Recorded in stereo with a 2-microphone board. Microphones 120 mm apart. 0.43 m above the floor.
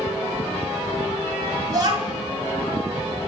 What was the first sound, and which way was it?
A child speaking, 35° right (ahead or behind).